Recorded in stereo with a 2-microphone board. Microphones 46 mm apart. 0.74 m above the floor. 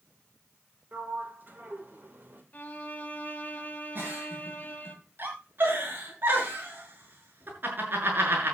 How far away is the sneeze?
No sneeze in this recording.